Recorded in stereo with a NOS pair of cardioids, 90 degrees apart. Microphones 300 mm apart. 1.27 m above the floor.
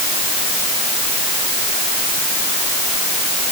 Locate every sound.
Only background noise.